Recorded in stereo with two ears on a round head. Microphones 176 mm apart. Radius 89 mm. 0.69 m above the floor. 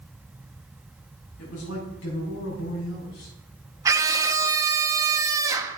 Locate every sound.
1.4 s a man speaking: 85° left, 4.5 m; by 3.8 s 45° left (ahead or behind), 5.5 m
3.9 s a scream: 15° right (ahead or behind), 0.9 m